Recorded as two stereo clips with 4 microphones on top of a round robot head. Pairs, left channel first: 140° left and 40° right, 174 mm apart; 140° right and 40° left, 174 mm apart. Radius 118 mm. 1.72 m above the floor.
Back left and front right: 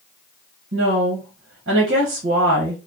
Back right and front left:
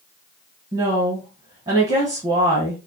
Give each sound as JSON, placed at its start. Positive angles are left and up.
{"t": 0.7, "sound": "a woman speaking", "azimuth_deg": -15, "distance_m": 1.0}